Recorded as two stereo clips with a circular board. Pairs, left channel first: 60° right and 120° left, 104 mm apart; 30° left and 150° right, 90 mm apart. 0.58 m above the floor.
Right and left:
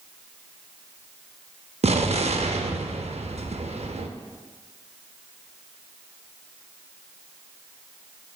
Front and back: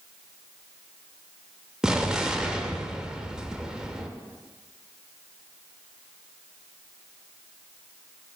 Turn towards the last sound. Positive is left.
turn(degrees=130)